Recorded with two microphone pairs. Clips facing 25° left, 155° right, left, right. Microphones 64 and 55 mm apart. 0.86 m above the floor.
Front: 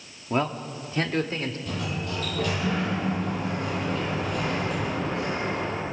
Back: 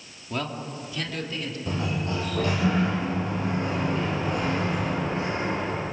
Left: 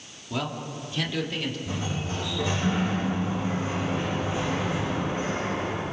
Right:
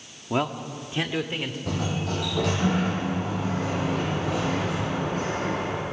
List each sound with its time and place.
0.3 s a man speaking: 40° right, 1.9 m; by 1.6 s 25° right, 3 m
1.7 s a sliding door: 95° right, 8 m